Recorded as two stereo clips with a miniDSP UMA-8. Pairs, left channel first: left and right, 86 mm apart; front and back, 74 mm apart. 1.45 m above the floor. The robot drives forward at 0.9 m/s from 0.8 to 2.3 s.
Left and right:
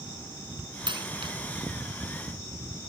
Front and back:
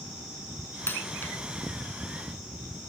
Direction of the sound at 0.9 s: 65° right.